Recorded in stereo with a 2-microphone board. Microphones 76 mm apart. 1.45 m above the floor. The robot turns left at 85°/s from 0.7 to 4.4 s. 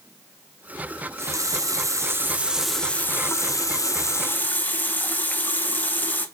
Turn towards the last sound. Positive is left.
turn(degrees=35)